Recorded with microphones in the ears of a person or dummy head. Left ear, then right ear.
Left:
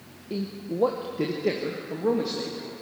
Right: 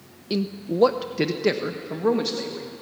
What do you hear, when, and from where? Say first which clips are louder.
0.3 s a man speaking: right 5 dB; 75° right (ahead or behind), 0.7 m; by 2.7 s 30° right (ahead or behind), 2 m